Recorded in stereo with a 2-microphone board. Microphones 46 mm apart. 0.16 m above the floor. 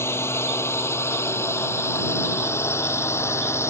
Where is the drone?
65° left (ahead or behind); by 3.7 s 70° left (ahead or behind).